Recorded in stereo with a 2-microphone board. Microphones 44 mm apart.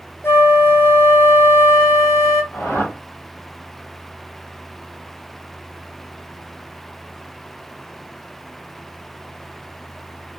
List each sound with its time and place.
0.2 s a flute: 60° left (ahead or behind), 1.0 m
2.5 s a whoosh: 70° left (ahead or behind), 2 m